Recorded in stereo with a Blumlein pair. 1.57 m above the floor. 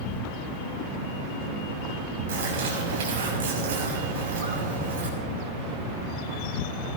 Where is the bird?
55° right, 6 m.